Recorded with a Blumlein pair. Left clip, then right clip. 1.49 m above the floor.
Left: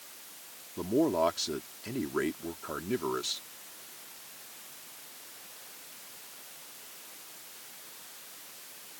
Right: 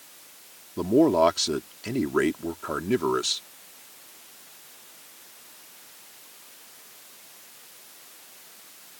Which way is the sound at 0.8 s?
25° right.